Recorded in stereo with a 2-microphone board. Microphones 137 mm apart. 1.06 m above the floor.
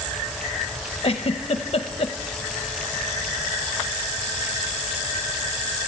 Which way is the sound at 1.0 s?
45° left (ahead or behind).